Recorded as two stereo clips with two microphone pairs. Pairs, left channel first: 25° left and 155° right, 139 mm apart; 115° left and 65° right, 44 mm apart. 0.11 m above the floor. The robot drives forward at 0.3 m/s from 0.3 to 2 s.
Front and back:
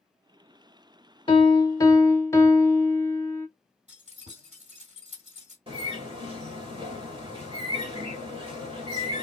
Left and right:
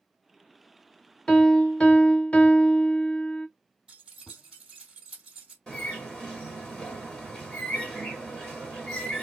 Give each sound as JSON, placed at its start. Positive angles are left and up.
{"t": 1.3, "sound": "a piano", "azimuth_deg": 50, "distance_m": 0.6}
{"t": 3.9, "sound": "keys jangling", "azimuth_deg": -135, "distance_m": 2.0}
{"t": 5.7, "sound": "a bird", "azimuth_deg": -170, "distance_m": 2.0}